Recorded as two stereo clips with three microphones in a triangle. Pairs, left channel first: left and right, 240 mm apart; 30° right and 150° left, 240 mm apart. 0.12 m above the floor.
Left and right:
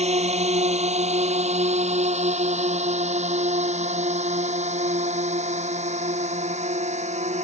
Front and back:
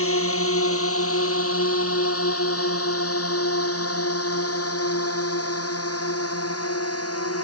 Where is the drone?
30° right.